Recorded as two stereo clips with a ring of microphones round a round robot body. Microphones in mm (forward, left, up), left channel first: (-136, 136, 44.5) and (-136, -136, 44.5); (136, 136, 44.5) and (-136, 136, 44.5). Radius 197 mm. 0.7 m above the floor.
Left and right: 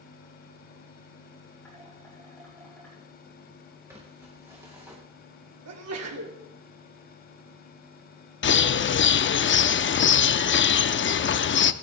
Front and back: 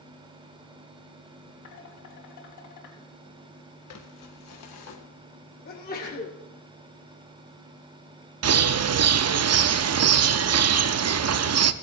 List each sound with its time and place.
1.6 s dishes clattering: 5° left, 3.5 m
3.9 s crumpling: 10° right, 1.8 m
5.7 s a sneeze: 60° right, 2 m
8.4 s a bird: 145° left, 0.7 m